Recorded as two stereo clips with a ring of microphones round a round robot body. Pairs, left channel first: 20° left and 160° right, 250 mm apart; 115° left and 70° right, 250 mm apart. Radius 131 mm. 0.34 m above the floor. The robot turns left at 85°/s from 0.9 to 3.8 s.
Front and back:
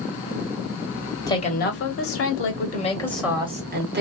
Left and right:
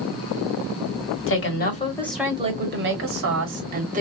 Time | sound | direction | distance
1.3 | a woman speaking | 95° left | 1.4 m